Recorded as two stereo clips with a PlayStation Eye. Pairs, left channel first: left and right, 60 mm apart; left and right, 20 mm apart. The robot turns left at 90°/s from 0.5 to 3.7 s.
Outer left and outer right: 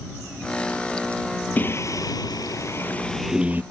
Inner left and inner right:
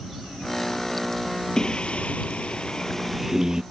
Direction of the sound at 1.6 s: 150° left.